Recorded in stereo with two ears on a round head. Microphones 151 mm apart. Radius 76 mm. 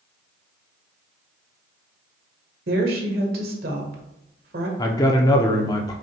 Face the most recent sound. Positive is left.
turn(degrees=20)  # may be behind; listen again after turning